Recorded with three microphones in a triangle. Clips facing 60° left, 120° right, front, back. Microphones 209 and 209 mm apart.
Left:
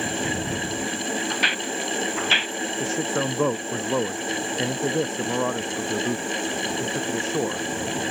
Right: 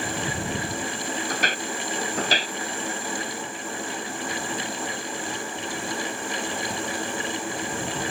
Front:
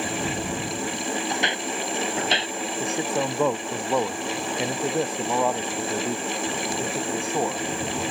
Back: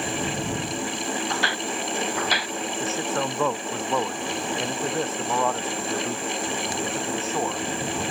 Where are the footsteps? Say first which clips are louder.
Left 1 dB, front 1 dB; 75° right; by 2.5 s 65° right.